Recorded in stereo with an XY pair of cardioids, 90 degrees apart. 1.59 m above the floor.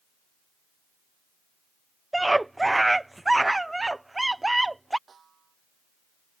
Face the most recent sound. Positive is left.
turn(degrees=-45)